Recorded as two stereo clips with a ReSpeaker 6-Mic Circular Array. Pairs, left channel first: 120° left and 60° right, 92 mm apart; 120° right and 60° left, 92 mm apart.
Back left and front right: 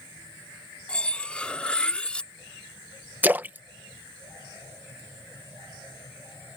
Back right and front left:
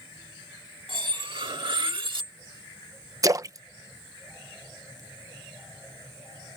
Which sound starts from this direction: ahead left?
Cutlery clinking, at 0.9 s.